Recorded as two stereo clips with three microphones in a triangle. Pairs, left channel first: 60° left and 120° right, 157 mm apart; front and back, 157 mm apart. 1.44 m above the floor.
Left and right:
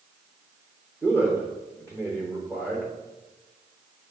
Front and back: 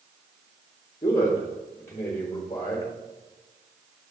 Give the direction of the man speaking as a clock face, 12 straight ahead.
2 o'clock.